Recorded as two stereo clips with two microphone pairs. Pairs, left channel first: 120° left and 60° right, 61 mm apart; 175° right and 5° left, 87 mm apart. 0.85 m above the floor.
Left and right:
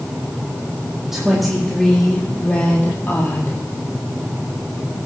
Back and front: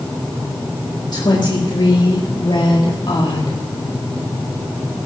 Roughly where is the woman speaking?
Behind right.